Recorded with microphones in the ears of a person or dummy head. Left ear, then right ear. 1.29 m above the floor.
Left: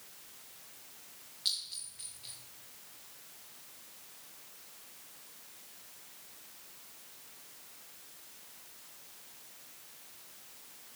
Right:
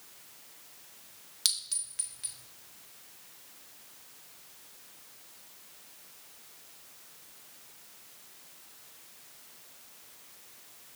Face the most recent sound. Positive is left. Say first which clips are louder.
# right 3 dB
turn(degrees=-35)  # may be behind; listen again after turning